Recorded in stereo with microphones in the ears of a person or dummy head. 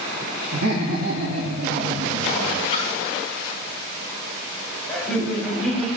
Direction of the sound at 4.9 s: Centre (ahead or behind).